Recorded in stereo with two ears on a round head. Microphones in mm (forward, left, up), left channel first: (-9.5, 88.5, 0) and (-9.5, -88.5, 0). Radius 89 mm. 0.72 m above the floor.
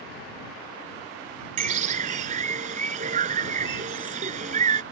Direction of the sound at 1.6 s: 40° right (ahead or behind).